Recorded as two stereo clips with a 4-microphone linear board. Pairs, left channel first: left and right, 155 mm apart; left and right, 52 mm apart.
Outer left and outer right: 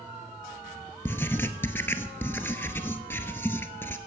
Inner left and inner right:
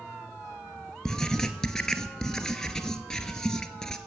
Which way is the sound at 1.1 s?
15° left (ahead or behind).